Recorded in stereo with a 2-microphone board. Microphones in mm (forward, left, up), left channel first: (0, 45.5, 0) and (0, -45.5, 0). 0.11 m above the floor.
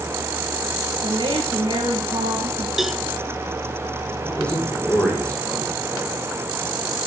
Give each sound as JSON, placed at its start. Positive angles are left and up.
{"t": 1.0, "sound": "a woman speaking", "side_deg": -55, "distance_m": 6.0}
{"t": 2.8, "sound": "a cowbell", "side_deg": -5, "distance_m": 0.9}
{"t": 4.2, "sound": "a man speaking", "side_deg": 10, "distance_m": 7.5}